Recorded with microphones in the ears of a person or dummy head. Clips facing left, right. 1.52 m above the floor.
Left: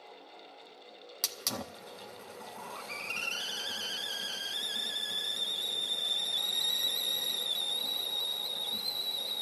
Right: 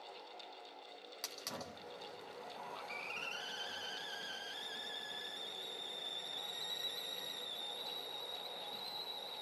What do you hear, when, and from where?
1.2 s a hiss: 55° left (ahead or behind), 0.9 m